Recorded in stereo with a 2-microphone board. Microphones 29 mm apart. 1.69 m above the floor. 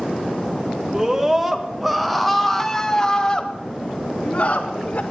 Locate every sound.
0.9 s a scream: 20° right (ahead or behind), 1.9 m; by 5.0 s 55° left (ahead or behind), 1.9 m